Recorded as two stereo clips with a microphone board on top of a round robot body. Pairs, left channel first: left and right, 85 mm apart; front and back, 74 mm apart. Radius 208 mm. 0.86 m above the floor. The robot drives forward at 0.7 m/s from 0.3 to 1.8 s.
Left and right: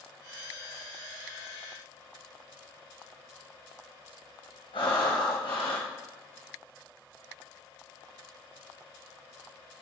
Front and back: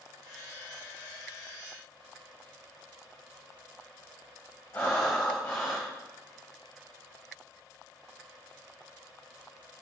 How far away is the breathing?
About 0.7 m.